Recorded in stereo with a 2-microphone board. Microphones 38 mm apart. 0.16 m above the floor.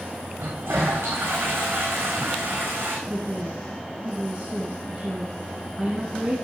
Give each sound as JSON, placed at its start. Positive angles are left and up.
{"t": 0.4, "sound": "a toilet flushing", "side_deg": -85, "distance_m": 3.0}
{"t": 3.1, "sound": "a woman speaking", "side_deg": -30, "distance_m": 1.5}